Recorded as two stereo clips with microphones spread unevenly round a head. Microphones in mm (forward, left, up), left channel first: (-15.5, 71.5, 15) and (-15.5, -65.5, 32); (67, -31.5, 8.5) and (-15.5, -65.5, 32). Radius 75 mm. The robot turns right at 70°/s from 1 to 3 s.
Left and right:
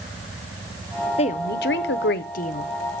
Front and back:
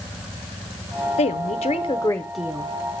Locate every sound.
1.2 s a woman speaking: 35° left, 0.6 m; by 2.7 s 140° left, 0.6 m